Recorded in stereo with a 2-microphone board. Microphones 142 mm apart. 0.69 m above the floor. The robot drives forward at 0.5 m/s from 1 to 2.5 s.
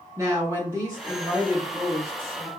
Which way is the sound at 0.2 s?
25° right (ahead or behind).